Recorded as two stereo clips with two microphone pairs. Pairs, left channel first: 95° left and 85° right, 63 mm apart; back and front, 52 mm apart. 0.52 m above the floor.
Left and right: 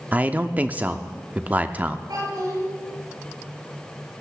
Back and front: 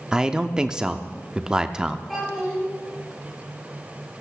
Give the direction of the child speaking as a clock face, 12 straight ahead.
3 o'clock.